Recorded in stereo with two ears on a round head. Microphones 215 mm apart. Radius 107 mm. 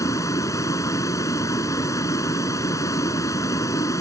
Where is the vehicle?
15° left (ahead or behind).